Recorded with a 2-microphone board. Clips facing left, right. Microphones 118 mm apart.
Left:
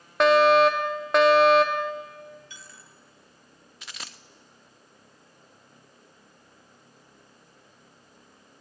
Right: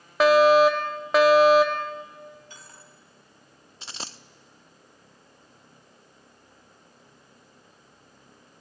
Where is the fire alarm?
Centre (ahead or behind), 1.0 m.